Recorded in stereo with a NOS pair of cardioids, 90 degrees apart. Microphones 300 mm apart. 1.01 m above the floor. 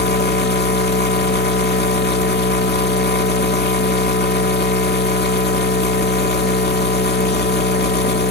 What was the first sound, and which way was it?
A machine running, 35° left.